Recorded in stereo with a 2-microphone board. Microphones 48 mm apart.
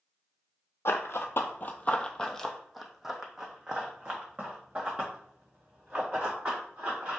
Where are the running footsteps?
70° left (ahead or behind), 0.7 m; by 7.2 s 30° right (ahead or behind), 3 m.